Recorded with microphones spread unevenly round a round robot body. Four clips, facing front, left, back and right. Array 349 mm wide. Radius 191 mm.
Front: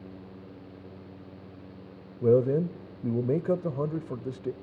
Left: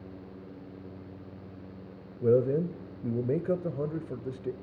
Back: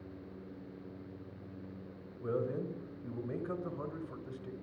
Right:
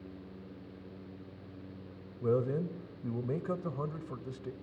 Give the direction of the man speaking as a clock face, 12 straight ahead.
12 o'clock.